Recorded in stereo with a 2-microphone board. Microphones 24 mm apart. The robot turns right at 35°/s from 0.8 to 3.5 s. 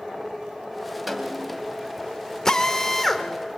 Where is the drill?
25° left (ahead or behind), 1.6 m; by 3.2 s 5° left (ahead or behind), 1.6 m.